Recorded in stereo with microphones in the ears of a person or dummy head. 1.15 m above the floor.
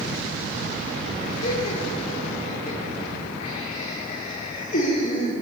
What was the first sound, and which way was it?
Laughter, 45° left (ahead or behind).